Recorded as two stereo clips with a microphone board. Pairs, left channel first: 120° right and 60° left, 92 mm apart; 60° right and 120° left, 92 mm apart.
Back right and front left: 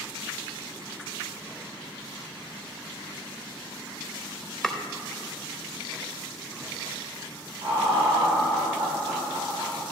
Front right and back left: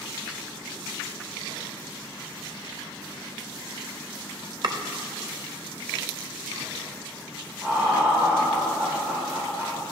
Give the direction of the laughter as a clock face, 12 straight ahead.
10 o'clock.